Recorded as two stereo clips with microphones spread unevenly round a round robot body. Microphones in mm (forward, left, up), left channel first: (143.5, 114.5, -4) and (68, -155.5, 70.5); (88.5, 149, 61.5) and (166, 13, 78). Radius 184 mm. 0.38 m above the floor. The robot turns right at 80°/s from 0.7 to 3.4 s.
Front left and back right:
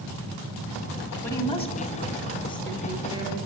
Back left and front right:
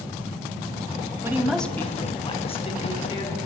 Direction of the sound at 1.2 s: 10° left.